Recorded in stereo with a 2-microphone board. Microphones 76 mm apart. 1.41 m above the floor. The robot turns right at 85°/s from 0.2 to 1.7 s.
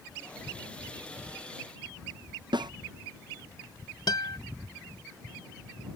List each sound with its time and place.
2.5 s a snare drum: 75° right (ahead or behind)
4.1 s a guitar: 65° left (ahead or behind)